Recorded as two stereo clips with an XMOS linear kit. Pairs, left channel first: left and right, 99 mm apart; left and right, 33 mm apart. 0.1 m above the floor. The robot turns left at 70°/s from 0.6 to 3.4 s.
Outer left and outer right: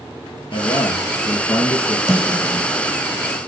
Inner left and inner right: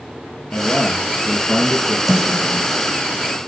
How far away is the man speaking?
About 2 m.